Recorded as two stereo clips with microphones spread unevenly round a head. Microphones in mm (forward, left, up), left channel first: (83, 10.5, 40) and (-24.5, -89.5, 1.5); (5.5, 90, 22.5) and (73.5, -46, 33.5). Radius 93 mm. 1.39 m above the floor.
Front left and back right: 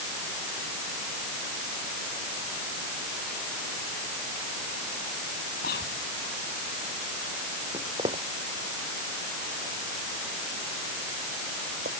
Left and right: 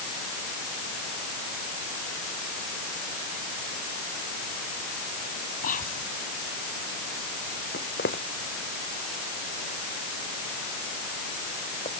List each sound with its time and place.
5.6 s whispering: 85° left
7.7 s footsteps: 155° left; by 12.0 s straight behind